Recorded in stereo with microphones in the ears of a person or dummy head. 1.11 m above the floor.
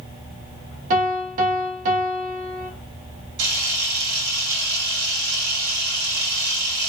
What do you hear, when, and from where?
0.9 s a piano: 45° right (ahead or behind), 1.4 m
3.4 s a camera shutter: 70° right (ahead or behind), 3 m